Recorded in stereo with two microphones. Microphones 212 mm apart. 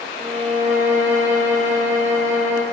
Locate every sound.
0.2 s a violin: 40° right (ahead or behind), 2.5 m